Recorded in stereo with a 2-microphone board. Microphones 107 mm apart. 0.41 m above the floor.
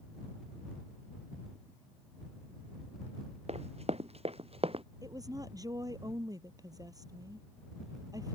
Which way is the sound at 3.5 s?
75° right (ahead or behind).